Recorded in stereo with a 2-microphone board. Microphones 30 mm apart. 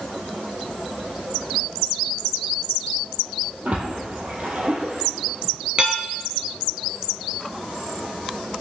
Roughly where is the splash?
Right.